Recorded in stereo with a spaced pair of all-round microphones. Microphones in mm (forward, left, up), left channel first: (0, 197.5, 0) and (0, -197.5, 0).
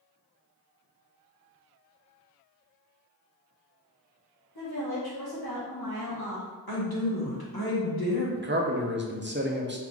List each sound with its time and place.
4.5 s a woman speaking: 70° left (ahead or behind), 1.1 m
6.7 s a woman speaking: 70° left (ahead or behind), 1.4 m
8.4 s a man speaking: 30° right (ahead or behind), 0.6 m